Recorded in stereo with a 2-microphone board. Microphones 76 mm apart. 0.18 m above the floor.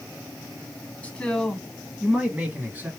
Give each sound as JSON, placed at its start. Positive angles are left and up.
{"t": 1.0, "sound": "a man speaking", "side_deg": 20, "distance_m": 1.1}